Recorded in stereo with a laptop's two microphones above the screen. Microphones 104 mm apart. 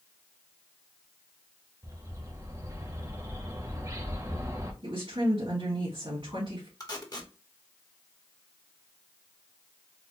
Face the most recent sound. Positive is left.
turn(degrees=40)  # may be behind; listen again after turning